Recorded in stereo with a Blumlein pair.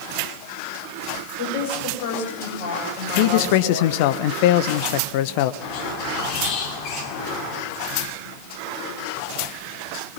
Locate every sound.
1.4 s a woman speaking: 45° left, 8 m
3.2 s a man speaking: 45° left, 1.1 m
5.6 s a squeak: 40° left, 3 m